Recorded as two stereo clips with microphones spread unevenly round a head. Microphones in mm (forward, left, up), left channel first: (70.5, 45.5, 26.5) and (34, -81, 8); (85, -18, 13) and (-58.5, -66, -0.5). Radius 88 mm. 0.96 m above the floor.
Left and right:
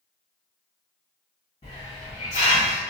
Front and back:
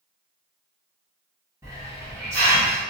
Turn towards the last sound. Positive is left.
turn(degrees=125)